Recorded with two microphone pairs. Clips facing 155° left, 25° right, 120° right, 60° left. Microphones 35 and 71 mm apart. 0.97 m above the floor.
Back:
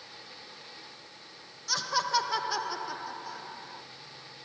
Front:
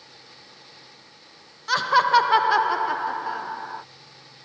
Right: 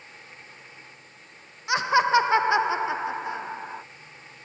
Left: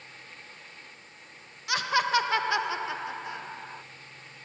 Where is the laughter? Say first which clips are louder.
Front 11 dB, right 5 dB; 60° right.